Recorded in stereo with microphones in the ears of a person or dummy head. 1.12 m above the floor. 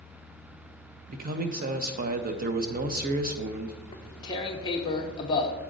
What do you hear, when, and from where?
1.1 s a man speaking: 45° right (ahead or behind), 0.5 m
3.9 s tearing paper: 25° left (ahead or behind), 0.7 m